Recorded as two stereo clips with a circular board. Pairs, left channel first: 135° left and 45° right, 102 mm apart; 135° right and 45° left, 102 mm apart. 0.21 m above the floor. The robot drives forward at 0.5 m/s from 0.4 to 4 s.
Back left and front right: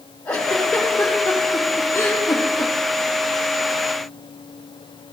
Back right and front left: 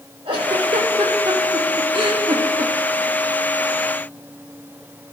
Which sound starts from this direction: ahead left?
A giggle, at 0.2 s.